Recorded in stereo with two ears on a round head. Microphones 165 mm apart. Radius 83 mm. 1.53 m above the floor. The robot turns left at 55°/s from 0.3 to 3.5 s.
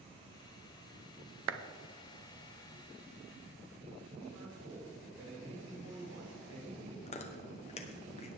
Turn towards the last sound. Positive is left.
turn(degrees=35)  # may be behind; listen again after turning